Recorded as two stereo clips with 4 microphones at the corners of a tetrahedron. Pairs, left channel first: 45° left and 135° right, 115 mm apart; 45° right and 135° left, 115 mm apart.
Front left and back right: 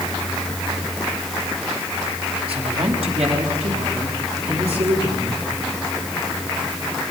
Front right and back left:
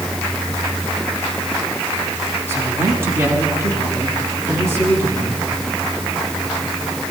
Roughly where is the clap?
I don't hear a clap.